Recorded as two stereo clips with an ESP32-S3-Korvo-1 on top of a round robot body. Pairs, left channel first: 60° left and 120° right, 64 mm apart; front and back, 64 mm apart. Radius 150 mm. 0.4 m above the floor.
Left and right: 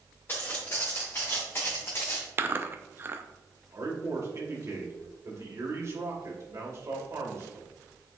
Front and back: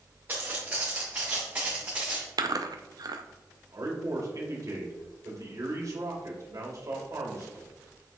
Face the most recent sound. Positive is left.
turn(degrees=-155)